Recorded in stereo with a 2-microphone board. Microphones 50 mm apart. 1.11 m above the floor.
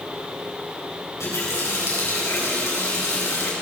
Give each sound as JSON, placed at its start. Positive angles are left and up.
{"t": 1.2, "sound": "a running tap", "side_deg": 75, "distance_m": 5.0}